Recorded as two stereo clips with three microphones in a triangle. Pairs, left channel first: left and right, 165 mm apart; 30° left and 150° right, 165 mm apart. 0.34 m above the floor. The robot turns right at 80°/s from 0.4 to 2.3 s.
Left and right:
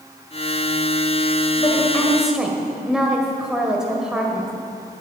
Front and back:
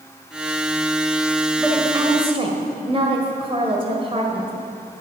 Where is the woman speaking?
130° left, 1.7 m; by 4.5 s 175° right, 1.7 m.